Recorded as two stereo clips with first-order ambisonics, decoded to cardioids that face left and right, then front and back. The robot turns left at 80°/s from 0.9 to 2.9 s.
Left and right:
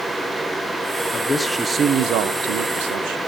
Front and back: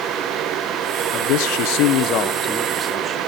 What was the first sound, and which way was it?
A man speaking, 30° left.